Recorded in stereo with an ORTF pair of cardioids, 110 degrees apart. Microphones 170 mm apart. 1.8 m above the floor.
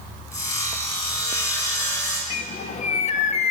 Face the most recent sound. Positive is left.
turn(degrees=40)